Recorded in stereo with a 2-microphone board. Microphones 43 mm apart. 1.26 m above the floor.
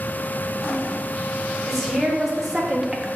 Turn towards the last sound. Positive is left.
turn(degrees=-15)  # may be behind; listen again after turning